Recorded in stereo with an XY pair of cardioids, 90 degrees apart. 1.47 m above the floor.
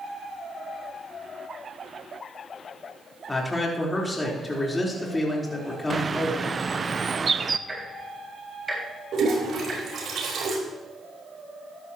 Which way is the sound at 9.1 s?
65° right.